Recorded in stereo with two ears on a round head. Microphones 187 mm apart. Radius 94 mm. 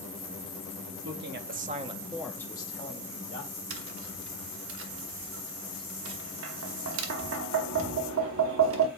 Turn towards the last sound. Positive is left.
turn(degrees=-70)  # may be behind; listen again after turning